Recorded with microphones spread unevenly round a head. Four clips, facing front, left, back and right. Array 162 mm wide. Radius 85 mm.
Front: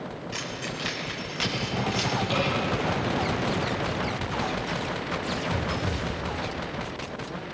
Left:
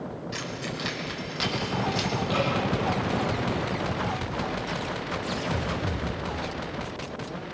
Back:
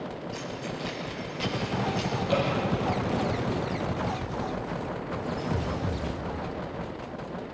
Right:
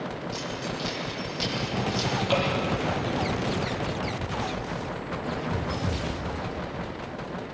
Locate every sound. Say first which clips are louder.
0.3 s keys jangling: right 1 dB, even; 45° left, 5.5 m; by 2.1 s 40° left, 6.5 m
2.3 s dripping: right 2 dB, back 4 dB; 110° right, 9 m